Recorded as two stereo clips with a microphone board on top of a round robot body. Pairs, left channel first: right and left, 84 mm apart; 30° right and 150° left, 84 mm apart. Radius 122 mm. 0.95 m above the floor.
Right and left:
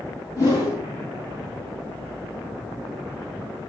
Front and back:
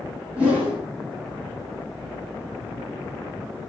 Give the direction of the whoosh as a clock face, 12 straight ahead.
5 o'clock.